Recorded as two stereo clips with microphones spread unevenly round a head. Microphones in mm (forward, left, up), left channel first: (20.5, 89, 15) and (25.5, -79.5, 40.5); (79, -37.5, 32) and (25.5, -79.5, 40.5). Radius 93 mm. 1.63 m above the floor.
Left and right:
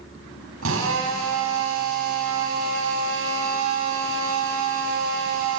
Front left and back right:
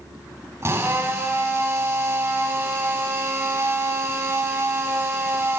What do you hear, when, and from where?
0.6 s a drill: 90° right, 9.5 m